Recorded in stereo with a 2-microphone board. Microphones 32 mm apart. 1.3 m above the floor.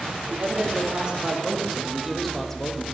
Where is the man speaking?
40° right (ahead or behind), 2 m; by 2.8 s 20° left (ahead or behind), 1.4 m.